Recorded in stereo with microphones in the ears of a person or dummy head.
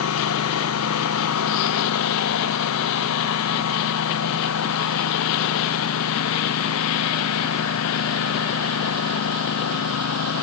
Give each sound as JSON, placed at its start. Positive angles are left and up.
{"t": 0.0, "sound": "a lawn mower", "side_deg": 90}